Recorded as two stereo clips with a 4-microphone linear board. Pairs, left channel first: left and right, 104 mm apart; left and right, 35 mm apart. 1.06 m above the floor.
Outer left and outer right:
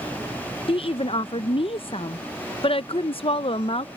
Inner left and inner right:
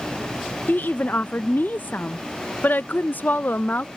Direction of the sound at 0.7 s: 65° left (ahead or behind).